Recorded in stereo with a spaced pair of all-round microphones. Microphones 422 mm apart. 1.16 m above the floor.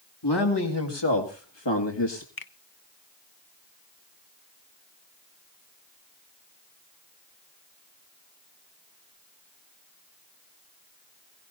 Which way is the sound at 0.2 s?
65° left (ahead or behind).